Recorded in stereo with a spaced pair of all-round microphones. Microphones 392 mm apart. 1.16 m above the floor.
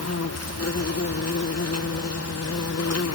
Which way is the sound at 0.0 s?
40° left (ahead or behind).